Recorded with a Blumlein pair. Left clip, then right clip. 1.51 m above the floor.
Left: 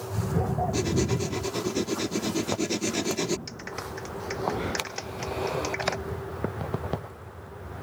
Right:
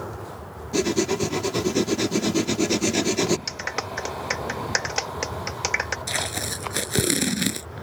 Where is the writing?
15° right.